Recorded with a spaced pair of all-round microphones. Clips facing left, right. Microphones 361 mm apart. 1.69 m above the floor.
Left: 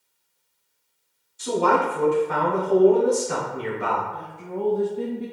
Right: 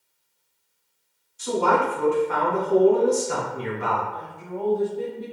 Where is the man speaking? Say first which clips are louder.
Left 1 dB; 50° left (ahead or behind), 1.3 m.